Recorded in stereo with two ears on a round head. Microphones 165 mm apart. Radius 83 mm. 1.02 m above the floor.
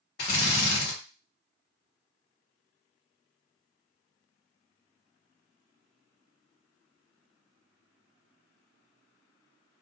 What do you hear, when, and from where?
0.2 s a drill: 60° left (ahead or behind), 1.4 m